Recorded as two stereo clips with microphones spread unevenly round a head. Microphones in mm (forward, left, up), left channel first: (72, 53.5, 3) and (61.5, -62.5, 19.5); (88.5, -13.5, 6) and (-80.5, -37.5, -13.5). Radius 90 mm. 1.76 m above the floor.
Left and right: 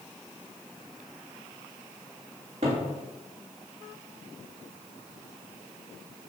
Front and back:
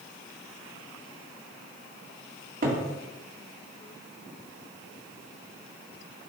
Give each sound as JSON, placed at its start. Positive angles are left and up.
{"t": 2.6, "sound": "a cupboard door", "azimuth_deg": -135, "distance_m": 1.7}